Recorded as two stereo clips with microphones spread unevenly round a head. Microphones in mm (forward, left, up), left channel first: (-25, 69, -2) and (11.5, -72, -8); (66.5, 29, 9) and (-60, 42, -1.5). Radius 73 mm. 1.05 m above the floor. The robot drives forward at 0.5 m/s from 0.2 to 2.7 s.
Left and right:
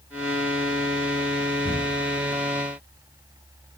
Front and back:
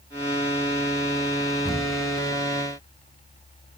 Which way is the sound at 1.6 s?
85° left.